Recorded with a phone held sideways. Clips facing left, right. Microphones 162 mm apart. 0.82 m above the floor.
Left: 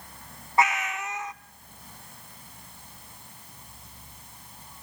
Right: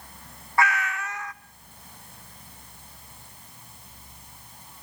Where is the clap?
No clap in this recording.